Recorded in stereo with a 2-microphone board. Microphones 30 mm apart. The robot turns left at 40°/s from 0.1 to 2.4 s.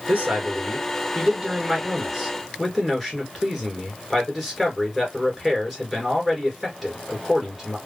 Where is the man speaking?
95° right, 2 m; by 7.8 s 175° left, 2 m.